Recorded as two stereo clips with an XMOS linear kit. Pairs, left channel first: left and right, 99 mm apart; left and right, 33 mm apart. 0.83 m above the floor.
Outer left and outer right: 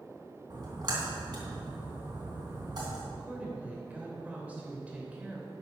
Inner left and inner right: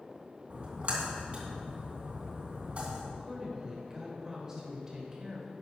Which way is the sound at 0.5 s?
50° right (ahead or behind).